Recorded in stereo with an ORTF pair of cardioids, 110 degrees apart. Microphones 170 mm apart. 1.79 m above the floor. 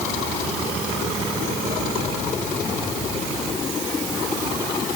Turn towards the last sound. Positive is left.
No sound to turn to.